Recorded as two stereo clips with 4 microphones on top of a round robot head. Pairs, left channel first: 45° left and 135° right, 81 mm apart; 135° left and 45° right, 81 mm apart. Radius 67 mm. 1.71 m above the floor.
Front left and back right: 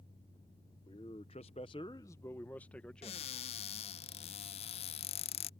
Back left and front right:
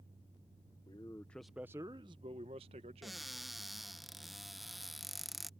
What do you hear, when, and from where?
0.9 s a man speaking: 85° left; by 3.2 s 35° right
3.0 s a cupboard door: 40° left